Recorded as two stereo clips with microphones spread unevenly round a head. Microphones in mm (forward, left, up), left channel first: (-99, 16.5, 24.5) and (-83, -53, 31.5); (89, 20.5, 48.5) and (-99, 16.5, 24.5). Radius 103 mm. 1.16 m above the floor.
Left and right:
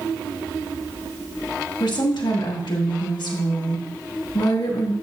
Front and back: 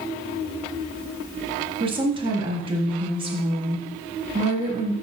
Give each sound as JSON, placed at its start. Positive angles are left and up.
{"t": 1.8, "sound": "a woman speaking", "azimuth_deg": 115, "distance_m": 2.0}